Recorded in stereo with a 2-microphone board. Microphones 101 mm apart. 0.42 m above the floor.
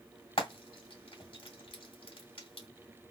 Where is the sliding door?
I don't hear a sliding door.